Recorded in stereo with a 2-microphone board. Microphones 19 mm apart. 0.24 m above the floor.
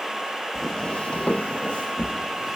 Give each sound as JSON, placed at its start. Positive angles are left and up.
{"t": 0.6, "sound": "footsteps", "side_deg": 15, "distance_m": 0.8}